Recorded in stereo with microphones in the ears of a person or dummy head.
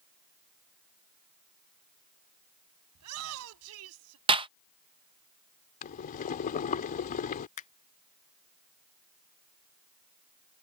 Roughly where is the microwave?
I don't hear a microwave.